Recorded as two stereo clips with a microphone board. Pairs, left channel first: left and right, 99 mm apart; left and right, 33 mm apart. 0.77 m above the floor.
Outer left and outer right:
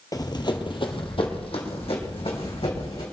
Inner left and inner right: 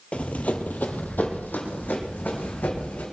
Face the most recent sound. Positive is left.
turn(degrees=75)  # may be behind; listen again after turning